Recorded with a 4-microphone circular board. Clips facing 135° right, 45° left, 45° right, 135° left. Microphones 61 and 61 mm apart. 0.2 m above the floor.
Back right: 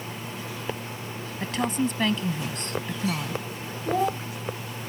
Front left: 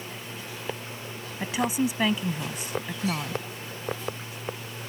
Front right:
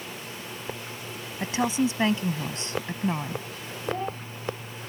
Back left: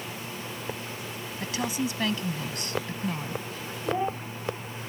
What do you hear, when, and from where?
1.4 s a woman speaking: 25° right
3.9 s a child speaking: 150° right